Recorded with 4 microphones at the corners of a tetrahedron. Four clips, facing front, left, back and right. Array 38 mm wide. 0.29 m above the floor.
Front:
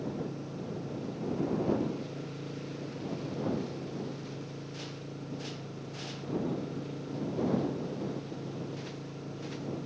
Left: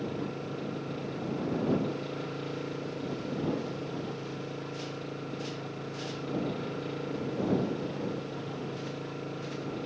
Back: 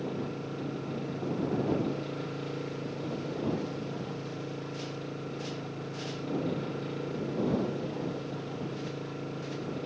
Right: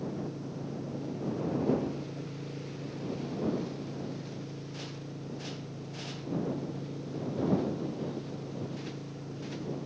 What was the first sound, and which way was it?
An engine running, 120° left.